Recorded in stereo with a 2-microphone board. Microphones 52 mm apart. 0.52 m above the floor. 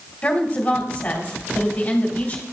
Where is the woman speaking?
30° left (ahead or behind), 2 m.